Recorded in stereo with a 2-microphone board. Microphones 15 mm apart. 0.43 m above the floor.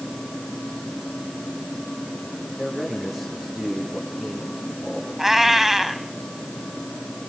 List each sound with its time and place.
2.6 s a man speaking: 40° right (ahead or behind), 6.5 m
5.2 s a cat meowing: 20° right (ahead or behind), 1.1 m